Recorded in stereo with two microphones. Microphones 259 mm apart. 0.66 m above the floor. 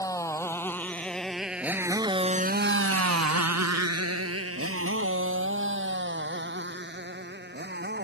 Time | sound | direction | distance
0.0 | a motorcycle | 10° left (ahead or behind) | ?